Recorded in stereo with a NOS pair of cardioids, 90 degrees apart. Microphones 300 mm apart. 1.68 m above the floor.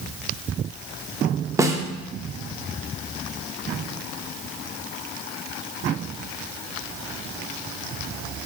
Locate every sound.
1.6 s a snare drum: 10° right, 0.6 m